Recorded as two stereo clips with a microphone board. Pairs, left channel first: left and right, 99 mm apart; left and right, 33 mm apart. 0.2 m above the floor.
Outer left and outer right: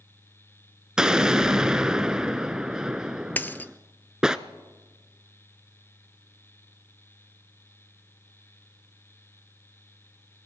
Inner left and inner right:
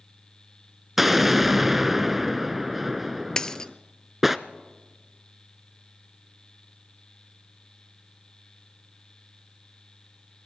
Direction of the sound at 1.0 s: 5° right (ahead or behind).